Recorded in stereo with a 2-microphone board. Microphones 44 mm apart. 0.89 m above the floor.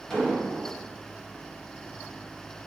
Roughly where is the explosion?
Centre.